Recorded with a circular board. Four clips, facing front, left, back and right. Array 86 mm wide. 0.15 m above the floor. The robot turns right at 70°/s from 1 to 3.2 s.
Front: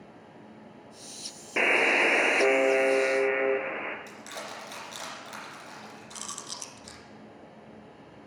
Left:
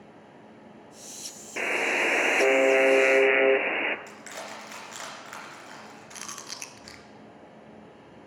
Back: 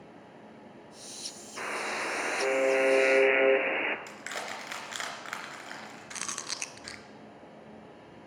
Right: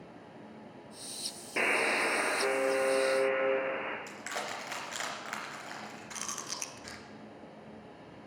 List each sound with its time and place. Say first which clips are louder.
1.6 s a buzzer: left 2 dB, front 10 dB; 5° right, 0.7 m; by 4.0 s 110° left, 0.7 m
4.1 s crushing: right 1 dB, back 2 dB; 160° right, 2.5 m
6.1 s chewing: even, back 4 dB; 170° left, 0.7 m